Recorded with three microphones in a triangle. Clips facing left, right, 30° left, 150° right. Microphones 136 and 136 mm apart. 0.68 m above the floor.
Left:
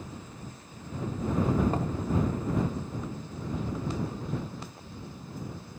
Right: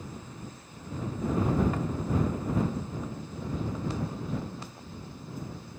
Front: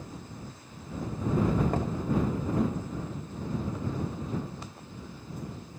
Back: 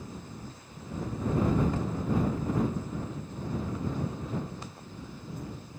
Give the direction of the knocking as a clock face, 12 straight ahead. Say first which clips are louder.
Left 1 dB, front 2 dB; 11 o'clock.